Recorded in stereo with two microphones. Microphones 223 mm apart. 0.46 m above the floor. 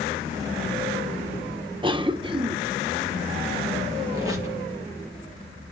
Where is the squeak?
15° right (ahead or behind), 3 m.